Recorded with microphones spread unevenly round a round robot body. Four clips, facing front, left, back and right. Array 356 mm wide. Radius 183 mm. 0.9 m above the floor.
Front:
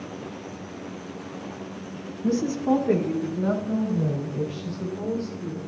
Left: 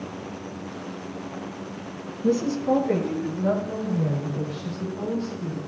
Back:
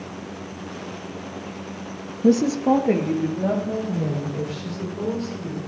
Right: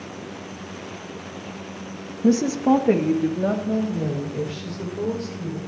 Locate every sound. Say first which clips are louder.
2.2 s a woman speaking: right 4 dB, back 6 dB; 145° right, 0.7 m; by 5.6 s 120° right, 5 m